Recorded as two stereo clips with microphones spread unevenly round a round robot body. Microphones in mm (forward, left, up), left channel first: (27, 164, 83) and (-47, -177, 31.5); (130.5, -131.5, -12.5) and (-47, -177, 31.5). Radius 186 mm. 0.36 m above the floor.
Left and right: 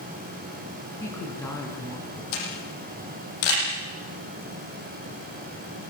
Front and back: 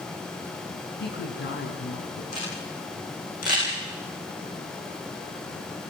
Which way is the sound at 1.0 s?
5° right.